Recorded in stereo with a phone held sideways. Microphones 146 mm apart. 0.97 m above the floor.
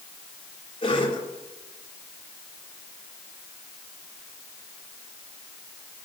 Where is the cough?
35° left (ahead or behind), 3 m.